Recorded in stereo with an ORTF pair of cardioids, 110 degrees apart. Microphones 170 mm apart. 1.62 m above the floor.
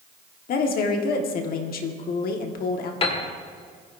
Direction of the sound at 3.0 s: 35° left.